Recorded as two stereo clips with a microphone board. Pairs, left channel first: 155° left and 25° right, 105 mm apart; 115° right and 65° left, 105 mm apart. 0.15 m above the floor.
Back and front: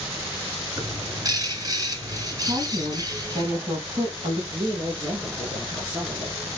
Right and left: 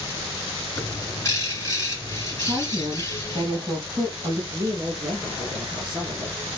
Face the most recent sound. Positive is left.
turn(degrees=35)